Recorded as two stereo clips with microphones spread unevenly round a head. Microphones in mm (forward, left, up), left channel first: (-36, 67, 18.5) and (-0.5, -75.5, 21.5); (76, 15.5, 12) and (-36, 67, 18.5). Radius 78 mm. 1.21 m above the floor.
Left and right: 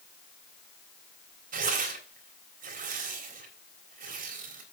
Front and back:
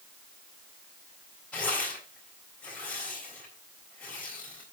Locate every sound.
1.5 s tearing paper: 110° right, 3.5 m